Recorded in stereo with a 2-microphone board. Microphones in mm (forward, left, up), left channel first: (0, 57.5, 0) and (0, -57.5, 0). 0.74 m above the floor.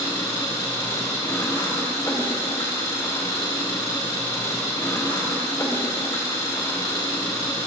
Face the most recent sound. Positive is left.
turn(degrees=35)  # may be behind; listen again after turning